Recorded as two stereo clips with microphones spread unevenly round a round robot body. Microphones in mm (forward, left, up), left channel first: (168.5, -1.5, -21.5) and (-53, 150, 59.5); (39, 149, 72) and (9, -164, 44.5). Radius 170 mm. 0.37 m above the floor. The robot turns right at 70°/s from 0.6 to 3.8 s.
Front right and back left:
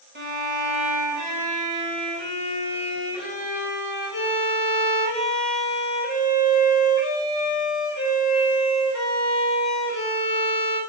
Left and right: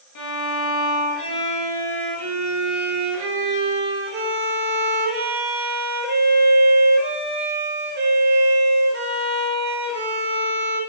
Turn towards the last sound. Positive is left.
turn(degrees=-50)